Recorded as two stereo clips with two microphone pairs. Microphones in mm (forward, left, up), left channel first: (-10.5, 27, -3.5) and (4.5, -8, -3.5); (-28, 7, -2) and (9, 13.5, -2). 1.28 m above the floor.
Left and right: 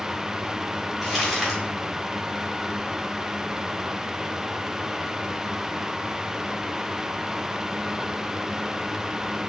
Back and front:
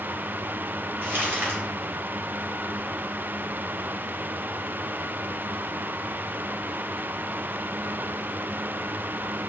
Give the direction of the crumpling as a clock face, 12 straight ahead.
11 o'clock.